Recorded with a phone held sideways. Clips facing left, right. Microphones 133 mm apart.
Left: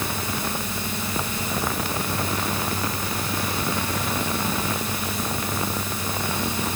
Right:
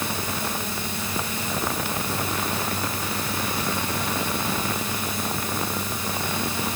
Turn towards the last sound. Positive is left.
No sound to turn to.